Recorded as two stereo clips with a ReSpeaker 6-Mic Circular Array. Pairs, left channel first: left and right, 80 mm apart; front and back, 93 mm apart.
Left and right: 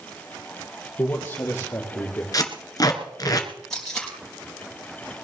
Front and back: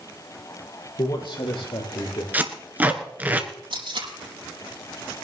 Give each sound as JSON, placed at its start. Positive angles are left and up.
{"t": 1.0, "sound": "a man speaking", "azimuth_deg": 25, "distance_m": 3.5}
{"t": 2.3, "sound": "tape being pulled", "azimuth_deg": 115, "distance_m": 1.6}
{"t": 3.7, "sound": "tape being pulled", "azimuth_deg": 175, "distance_m": 5.0}